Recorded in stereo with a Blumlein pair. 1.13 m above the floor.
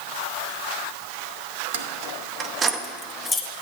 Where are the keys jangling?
60° right, 0.9 m; by 3.5 s 15° left, 0.9 m.